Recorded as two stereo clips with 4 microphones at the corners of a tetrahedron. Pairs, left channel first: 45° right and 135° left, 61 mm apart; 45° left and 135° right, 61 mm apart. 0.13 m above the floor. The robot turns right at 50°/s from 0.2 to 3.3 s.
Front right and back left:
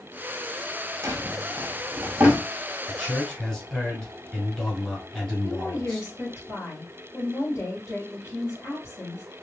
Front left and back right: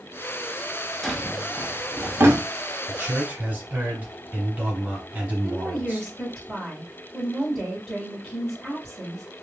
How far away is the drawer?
About 0.6 m.